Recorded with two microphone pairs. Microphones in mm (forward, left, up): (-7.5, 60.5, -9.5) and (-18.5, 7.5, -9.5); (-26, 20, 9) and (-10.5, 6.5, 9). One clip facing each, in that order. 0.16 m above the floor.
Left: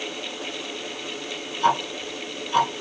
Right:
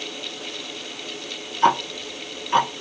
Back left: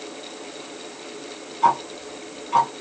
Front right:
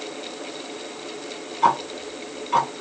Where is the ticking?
115° right, 0.5 m.